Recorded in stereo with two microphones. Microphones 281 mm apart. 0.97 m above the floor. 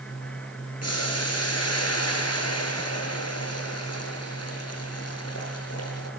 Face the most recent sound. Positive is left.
turn(degrees=60)  # may be behind; listen again after turning